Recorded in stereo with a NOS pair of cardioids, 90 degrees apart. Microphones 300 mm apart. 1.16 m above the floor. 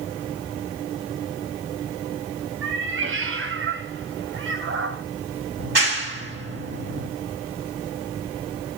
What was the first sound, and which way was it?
A cat meowing, 45° right.